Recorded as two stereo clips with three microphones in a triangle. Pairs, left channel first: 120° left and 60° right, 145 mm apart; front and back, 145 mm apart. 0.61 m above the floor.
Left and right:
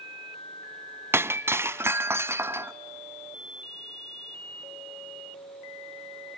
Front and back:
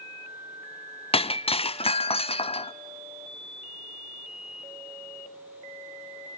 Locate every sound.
1.1 s breaking glass: 5° left, 0.6 m